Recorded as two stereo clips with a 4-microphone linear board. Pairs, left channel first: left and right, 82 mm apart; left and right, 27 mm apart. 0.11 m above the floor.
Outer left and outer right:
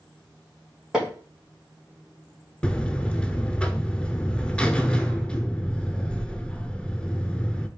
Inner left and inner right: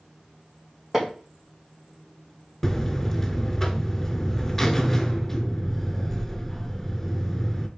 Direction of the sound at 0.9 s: 10° right (ahead or behind).